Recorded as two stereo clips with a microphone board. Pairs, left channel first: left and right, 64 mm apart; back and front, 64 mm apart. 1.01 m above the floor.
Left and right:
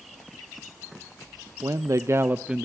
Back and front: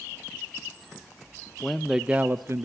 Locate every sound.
1.6 s a man speaking: 100° right, 0.9 m; by 2.6 s 10° right, 0.7 m